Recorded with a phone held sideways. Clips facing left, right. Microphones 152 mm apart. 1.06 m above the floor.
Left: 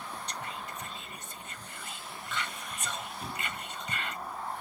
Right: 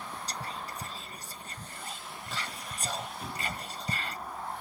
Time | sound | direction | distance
0.3 | whispering | 35° right (ahead or behind) | 0.8 m